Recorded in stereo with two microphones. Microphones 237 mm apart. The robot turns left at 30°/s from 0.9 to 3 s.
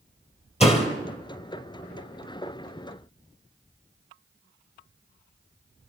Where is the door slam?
30° left (ahead or behind), 3 m.